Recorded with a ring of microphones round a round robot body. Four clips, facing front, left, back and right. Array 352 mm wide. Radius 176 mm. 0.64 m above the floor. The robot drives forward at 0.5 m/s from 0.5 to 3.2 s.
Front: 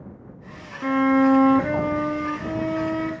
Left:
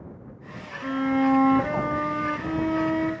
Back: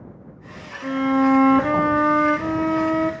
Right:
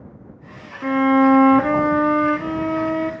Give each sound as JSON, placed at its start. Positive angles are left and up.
{"t": 0.8, "sound": "a violin", "azimuth_deg": -60, "distance_m": 0.6}